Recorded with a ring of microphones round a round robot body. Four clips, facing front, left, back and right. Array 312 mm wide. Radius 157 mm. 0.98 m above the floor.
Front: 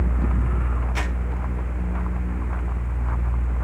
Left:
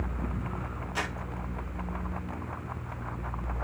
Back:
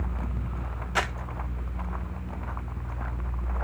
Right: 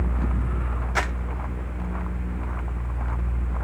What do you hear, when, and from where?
0.9 s crumpling: 125° right, 2.0 m